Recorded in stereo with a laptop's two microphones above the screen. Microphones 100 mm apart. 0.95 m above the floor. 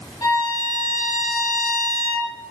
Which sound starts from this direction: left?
A violin, at 0.2 s.